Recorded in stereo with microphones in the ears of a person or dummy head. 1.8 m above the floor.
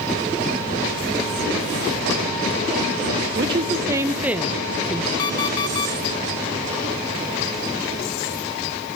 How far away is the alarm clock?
About 1.1 m.